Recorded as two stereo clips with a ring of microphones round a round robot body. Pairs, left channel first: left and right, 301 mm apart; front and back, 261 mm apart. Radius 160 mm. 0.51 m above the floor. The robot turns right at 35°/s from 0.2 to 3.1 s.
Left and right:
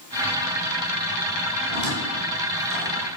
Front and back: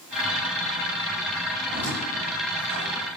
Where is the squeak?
90° right, 6 m; by 3.1 s 40° right, 6 m.